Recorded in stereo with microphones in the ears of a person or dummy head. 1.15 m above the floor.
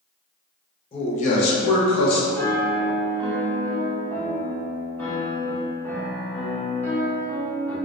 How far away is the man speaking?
About 0.8 m.